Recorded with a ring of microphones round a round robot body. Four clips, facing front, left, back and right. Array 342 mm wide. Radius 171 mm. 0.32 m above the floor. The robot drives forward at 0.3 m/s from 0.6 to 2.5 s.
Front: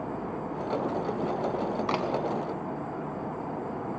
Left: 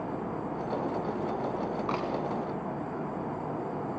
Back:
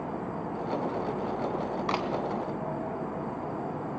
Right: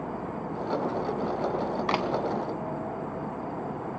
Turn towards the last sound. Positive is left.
turn(degrees=-90)